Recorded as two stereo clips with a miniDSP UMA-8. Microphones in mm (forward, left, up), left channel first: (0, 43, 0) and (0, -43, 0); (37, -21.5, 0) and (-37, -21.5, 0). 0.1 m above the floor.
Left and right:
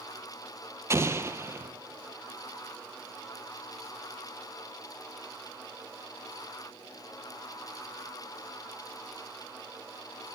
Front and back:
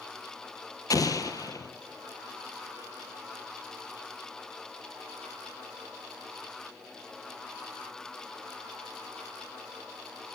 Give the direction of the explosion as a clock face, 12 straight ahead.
1 o'clock.